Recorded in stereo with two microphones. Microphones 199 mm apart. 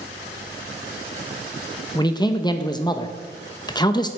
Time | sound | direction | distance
1.9 | a man speaking | 20° left (ahead or behind) | 0.6 m